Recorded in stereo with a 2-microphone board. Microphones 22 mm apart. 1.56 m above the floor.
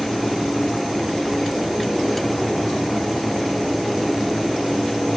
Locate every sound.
Only background noise.